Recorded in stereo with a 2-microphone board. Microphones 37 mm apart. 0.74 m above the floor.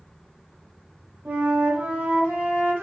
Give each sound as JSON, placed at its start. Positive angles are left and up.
{"t": 1.2, "sound": "a flute", "side_deg": -75, "distance_m": 0.9}